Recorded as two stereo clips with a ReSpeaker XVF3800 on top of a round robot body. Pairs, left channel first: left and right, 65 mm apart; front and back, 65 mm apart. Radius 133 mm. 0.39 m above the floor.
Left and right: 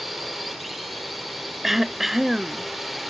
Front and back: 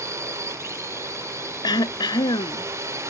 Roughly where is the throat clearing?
Ahead.